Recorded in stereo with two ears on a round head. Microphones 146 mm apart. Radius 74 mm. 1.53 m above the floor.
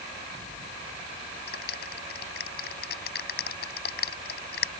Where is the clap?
65° left (ahead or behind).